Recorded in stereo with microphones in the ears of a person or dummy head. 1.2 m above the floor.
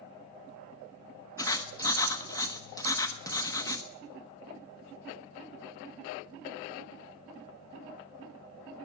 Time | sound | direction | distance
1.4 | writing | 20° left (ahead or behind) | 1.0 m